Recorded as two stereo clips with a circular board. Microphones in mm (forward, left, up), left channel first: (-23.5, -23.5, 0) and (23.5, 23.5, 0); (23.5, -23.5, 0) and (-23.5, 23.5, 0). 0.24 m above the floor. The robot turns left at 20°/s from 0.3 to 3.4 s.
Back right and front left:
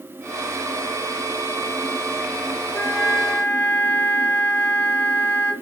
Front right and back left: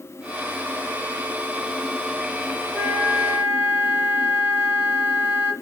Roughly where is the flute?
Behind.